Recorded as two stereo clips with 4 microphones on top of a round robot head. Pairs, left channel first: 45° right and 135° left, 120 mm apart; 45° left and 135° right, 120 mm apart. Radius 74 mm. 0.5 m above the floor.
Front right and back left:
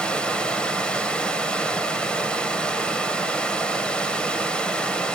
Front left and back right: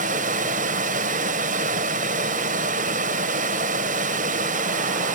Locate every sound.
0.0 s running water: 130° right, 1.5 m